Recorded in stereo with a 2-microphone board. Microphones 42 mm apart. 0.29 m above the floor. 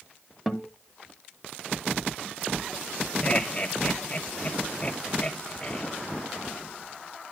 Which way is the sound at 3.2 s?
25° left (ahead or behind).